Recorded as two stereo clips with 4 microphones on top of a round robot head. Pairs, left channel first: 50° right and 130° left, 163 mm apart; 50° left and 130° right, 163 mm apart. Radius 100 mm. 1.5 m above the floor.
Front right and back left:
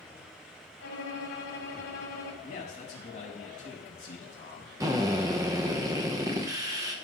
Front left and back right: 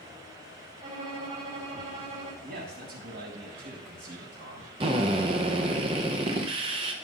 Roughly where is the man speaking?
Right.